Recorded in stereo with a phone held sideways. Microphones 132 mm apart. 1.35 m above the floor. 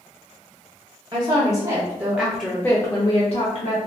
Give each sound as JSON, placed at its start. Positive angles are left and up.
{"t": 1.1, "sound": "a woman speaking", "side_deg": -30, "distance_m": 1.0}